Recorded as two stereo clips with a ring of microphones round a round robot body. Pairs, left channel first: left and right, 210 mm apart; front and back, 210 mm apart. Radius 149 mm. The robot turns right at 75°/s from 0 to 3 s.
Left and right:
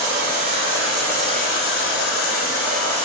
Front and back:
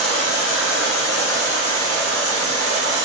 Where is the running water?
70° right, 1.5 m; by 3.1 s 155° left, 1.5 m.